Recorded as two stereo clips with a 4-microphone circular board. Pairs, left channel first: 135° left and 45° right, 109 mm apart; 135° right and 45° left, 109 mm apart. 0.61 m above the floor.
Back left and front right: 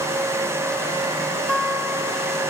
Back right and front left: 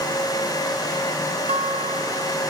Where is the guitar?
50° left, 1.2 m.